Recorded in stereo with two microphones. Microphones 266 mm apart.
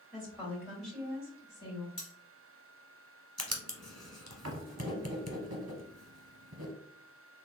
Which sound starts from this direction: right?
Writing, at 3.4 s.